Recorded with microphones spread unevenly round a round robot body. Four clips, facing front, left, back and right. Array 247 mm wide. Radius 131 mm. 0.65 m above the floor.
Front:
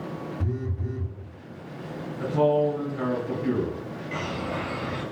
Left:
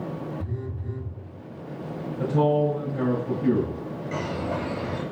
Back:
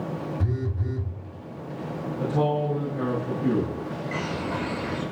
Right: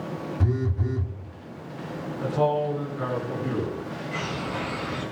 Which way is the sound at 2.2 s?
115° left.